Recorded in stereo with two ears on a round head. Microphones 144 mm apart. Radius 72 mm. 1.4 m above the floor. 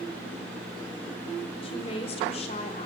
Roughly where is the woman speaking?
Left.